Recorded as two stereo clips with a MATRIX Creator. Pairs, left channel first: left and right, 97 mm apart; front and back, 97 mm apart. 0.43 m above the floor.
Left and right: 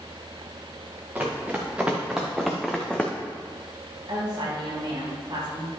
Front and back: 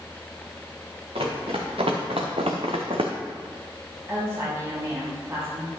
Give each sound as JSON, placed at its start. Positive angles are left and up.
{"t": 1.1, "sound": "running footsteps", "azimuth_deg": -160, "distance_m": 2.5}
{"t": 4.1, "sound": "a woman speaking", "azimuth_deg": -120, "distance_m": 3.5}